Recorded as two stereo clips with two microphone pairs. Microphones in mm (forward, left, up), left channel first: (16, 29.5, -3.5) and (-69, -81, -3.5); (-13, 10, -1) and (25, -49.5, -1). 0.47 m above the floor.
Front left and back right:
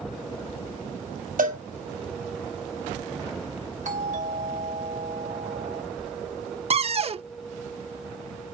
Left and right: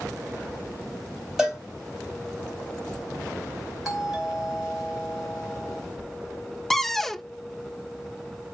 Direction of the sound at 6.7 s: 150° right.